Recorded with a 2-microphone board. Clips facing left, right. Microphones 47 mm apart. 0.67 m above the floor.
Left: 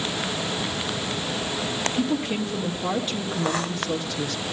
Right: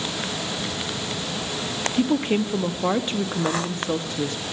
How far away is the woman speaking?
About 0.6 m.